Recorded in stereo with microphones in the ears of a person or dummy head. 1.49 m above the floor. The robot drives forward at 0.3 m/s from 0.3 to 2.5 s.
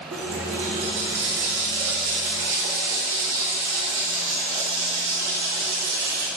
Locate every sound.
0.1 s a running tap: 65° right (ahead or behind), 2 m; by 6.3 s 50° right (ahead or behind), 2.5 m